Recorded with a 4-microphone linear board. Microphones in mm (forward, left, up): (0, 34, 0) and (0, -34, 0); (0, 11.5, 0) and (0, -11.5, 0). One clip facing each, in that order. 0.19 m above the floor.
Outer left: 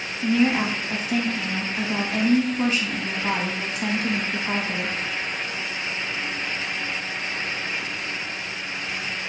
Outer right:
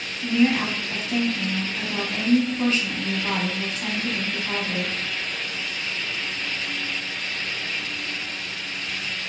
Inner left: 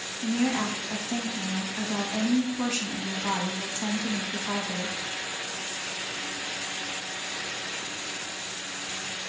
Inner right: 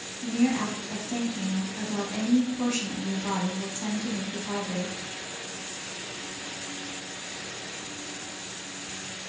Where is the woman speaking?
15° left (ahead or behind), 1.1 m.